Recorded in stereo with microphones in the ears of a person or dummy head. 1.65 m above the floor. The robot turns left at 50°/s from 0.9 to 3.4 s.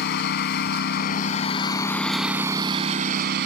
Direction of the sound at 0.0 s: 60° left.